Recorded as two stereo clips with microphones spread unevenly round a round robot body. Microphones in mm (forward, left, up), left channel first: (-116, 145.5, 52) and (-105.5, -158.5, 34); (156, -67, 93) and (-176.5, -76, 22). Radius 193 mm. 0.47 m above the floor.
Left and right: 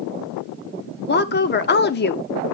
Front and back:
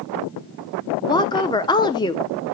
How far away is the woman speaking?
About 0.7 m.